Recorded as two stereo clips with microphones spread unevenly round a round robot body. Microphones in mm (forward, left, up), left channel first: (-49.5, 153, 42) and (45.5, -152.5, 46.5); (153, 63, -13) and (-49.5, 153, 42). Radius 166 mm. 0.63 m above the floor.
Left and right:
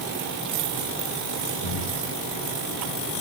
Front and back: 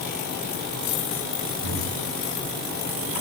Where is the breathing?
150° left, 5.5 m.